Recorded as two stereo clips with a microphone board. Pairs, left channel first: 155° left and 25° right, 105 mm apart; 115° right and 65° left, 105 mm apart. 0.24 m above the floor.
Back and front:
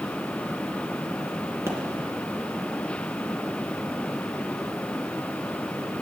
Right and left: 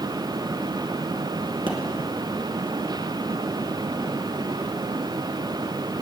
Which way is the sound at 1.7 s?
35° left.